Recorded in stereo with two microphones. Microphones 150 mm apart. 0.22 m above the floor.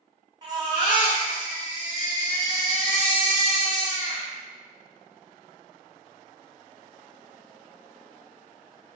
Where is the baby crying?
30° right (ahead or behind), 1.3 m.